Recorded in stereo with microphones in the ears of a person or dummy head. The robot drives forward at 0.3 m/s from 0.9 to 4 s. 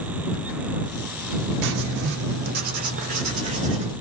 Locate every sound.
1.6 s writing: 65° right (ahead or behind), 0.7 m; by 3.9 s 35° right (ahead or behind), 1.1 m